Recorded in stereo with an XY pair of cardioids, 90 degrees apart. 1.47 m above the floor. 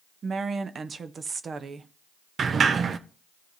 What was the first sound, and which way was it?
A woman speaking, 50° right.